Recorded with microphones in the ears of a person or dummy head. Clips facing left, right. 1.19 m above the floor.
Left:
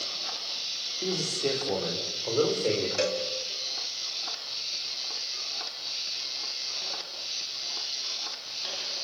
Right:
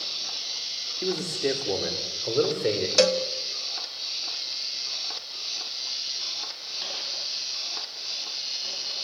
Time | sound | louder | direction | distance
1.0 | a man speaking | right 3 dB | 15° right (ahead or behind) | 3.5 m
3.0 | a cowbell | right 7 dB | 60° right (ahead or behind) | 1.6 m